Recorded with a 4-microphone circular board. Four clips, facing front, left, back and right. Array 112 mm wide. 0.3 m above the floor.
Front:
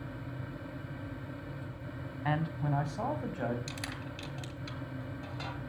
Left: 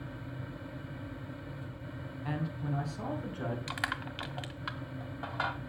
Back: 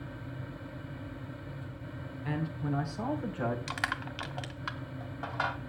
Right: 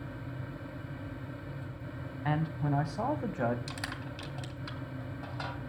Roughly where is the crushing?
Behind left.